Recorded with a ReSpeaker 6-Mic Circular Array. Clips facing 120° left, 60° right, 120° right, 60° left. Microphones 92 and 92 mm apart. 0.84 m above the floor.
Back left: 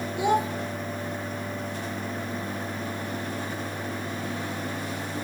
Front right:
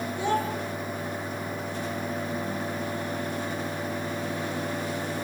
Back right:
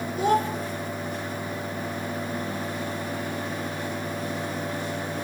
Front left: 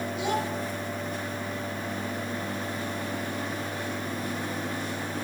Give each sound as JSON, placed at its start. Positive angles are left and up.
{"t": 0.2, "sound": "a child speaking", "azimuth_deg": -165, "distance_m": 1.9}